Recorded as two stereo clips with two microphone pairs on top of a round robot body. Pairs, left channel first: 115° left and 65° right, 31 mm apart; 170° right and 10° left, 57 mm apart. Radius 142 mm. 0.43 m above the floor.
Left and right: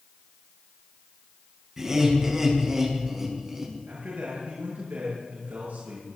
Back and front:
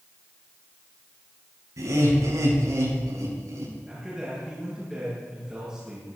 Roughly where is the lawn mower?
No lawn mower in this recording.